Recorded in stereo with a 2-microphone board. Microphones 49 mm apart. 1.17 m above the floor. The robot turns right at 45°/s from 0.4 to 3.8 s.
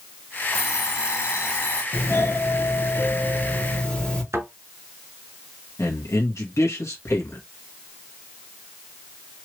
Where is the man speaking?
75° left (ahead or behind), 1.2 m.